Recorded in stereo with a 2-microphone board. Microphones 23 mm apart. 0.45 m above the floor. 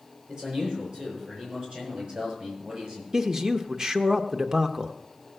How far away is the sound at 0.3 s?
About 8.5 m.